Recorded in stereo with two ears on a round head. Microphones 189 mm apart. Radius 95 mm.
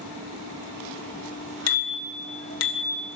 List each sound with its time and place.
1.7 s a bicycle bell: 75° left (ahead or behind), 2.5 m; by 3.0 s 70° left (ahead or behind), 3 m